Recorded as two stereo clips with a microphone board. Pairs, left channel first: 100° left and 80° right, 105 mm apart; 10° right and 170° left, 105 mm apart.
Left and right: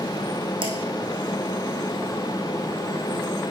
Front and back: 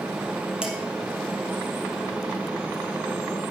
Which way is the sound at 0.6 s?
110° right.